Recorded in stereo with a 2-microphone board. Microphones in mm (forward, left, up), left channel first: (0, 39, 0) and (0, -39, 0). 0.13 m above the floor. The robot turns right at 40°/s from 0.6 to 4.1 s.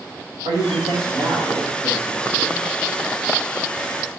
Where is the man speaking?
100° right, 4.5 m; by 2.6 s 20° right, 4.5 m.